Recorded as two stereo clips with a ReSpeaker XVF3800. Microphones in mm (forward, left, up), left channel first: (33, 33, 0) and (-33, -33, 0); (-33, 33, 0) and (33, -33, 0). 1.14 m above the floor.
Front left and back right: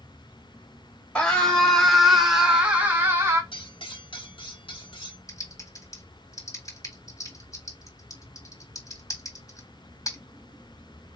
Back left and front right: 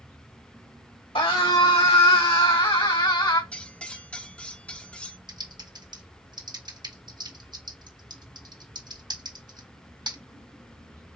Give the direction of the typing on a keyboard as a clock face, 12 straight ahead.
12 o'clock.